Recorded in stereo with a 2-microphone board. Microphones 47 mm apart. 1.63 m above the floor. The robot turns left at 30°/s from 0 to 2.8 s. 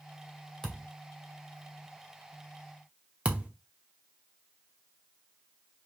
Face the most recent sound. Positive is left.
turn(degrees=-25)  # may be behind; listen again after turning